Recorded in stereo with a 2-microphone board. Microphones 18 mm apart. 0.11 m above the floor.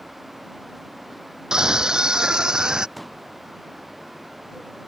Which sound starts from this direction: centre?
A pop, at 3.0 s.